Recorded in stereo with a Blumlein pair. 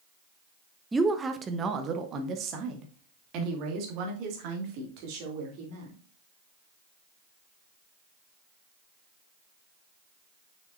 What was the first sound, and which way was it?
A woman speaking, 10° right.